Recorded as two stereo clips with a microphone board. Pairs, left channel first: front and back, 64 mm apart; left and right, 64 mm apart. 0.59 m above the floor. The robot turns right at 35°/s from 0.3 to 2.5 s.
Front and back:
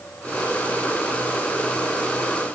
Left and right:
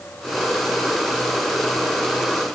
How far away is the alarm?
I don't hear an alarm.